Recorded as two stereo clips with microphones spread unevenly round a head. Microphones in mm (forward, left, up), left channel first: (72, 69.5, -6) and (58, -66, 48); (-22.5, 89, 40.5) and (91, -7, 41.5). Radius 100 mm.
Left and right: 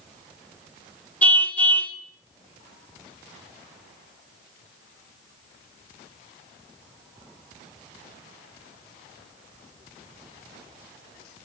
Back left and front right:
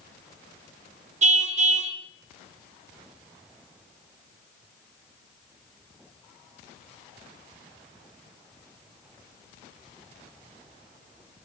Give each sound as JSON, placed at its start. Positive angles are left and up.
{"t": 1.2, "sound": "a car horn", "azimuth_deg": 0, "distance_m": 2.0}